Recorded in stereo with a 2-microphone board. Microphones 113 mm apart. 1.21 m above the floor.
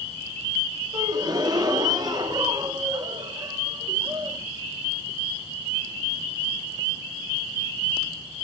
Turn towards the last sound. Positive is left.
turn(degrees=-40)  # may be behind; listen again after turning